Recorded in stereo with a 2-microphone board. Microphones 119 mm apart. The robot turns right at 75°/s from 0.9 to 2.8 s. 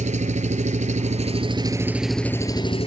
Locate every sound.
0.0 s an engine running: 90° right, 0.9 m; by 2.9 s 50° left, 0.9 m